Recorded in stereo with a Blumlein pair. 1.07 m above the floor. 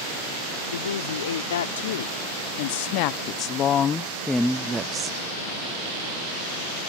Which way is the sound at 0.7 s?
65° left.